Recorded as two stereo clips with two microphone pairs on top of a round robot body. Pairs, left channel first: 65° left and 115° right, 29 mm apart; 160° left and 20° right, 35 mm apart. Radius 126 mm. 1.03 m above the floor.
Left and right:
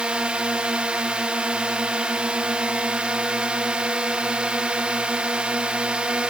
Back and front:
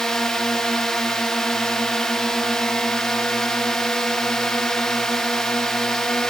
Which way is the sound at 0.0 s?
145° right.